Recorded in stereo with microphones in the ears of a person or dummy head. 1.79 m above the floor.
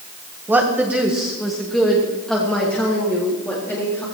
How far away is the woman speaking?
About 1.9 m.